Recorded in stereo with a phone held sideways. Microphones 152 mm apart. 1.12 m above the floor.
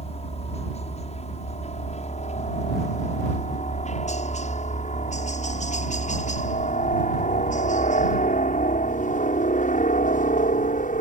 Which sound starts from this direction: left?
A helicopter, at 0.0 s.